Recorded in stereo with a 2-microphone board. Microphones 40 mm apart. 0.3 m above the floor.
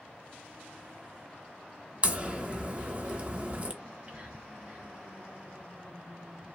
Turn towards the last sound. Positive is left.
turn(degrees=-20)  # may be behind; listen again after turning